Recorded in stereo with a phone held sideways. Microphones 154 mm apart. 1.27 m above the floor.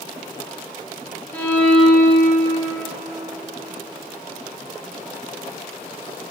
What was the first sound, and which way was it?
A violin, 10° left (ahead or behind).